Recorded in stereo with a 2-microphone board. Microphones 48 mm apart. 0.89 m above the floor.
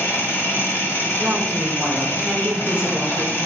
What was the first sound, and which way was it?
An engine running, 55° left (ahead or behind).